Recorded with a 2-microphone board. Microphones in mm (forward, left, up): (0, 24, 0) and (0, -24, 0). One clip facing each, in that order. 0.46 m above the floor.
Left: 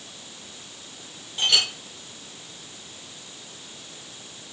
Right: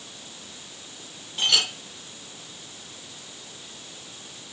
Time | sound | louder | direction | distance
1.4 | a clink | left 1 dB | 5° right (ahead or behind) | 6.5 m